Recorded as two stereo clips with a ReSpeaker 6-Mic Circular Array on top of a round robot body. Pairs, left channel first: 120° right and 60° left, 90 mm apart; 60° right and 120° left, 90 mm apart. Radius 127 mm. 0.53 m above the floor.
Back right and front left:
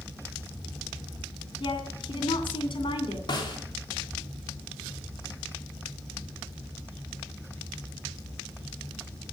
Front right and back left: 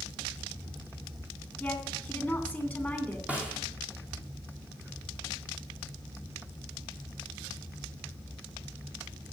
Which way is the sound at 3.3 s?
165° right.